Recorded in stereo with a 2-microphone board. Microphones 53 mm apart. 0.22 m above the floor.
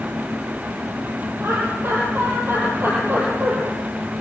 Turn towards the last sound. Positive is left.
turn(degrees=-40)  # may be behind; listen again after turning